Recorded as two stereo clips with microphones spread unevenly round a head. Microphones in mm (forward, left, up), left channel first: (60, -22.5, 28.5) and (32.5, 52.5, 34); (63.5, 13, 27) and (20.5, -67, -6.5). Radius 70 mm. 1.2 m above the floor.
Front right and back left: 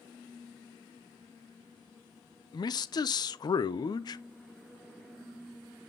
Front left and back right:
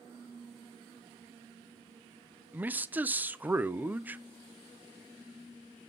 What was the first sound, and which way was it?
A man speaking, 65° right.